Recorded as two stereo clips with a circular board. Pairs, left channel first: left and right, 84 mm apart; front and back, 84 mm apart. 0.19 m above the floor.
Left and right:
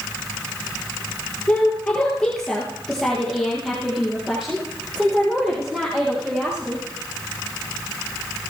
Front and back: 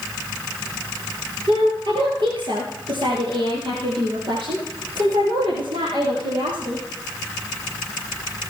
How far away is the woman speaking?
About 3.5 m.